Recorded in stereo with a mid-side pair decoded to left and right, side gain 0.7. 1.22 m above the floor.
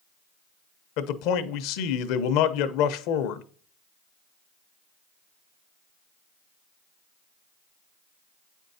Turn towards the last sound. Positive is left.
turn(degrees=70)